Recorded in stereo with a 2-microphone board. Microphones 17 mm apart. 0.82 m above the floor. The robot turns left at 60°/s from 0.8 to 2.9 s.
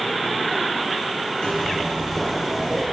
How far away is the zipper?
About 3.5 m.